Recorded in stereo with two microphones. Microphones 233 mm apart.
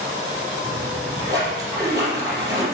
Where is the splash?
15° right (ahead or behind), 5.5 m.